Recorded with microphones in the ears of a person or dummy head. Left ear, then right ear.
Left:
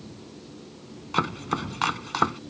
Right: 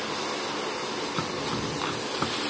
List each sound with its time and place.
1.1 s chopping: 35° left (ahead or behind)